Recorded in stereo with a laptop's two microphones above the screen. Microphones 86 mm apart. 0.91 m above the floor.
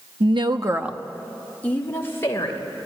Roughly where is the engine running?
No engine running in this recording.